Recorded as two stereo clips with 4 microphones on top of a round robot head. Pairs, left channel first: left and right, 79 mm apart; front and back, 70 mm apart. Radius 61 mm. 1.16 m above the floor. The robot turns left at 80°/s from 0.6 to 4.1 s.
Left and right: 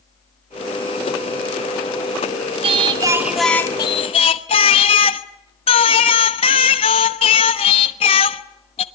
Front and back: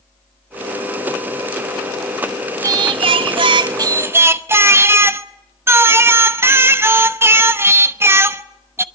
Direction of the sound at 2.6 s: 120° right.